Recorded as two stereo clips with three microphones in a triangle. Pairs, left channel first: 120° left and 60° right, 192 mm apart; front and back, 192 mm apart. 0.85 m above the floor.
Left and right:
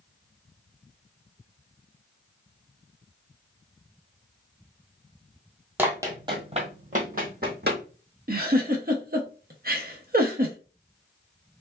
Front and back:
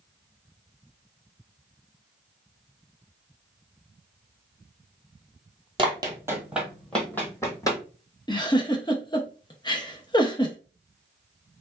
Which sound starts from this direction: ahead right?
A giggle, at 8.3 s.